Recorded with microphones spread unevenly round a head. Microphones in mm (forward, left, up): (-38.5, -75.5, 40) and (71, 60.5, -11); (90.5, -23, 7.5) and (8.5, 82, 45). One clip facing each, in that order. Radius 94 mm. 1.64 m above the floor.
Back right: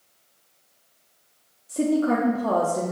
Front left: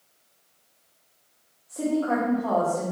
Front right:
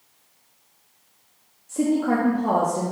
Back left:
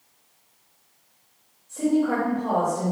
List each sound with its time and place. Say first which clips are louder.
1.7 s a woman speaking: back right 3 dB, front right 1 dB; 75° right, 1.1 m